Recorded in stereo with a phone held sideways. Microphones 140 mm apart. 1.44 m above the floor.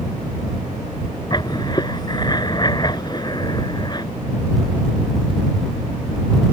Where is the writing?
30° left (ahead or behind).